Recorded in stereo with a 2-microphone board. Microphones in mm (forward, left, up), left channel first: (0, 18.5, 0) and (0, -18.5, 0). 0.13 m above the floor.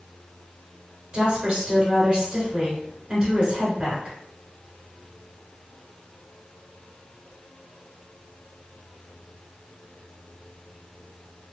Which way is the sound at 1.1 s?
30° right (ahead or behind).